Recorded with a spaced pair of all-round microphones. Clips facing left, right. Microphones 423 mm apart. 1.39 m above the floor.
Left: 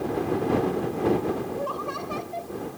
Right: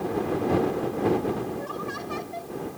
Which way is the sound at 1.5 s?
35° right (ahead or behind).